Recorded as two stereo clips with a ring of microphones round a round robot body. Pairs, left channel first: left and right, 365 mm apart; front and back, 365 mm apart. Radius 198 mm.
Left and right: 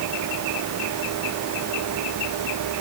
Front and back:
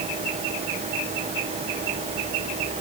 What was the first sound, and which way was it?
Only background noise.